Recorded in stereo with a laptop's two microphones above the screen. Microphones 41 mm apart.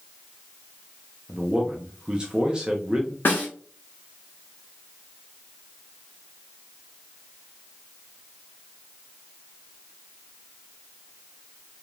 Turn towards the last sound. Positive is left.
turn(degrees=45)  # may be behind; listen again after turning